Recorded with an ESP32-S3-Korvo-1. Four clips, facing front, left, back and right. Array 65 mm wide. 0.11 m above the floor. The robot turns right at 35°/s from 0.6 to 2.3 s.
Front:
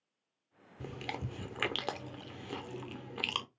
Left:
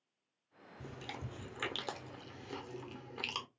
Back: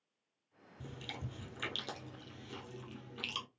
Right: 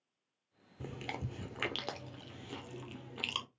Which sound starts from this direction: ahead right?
Chewing, at 0.8 s.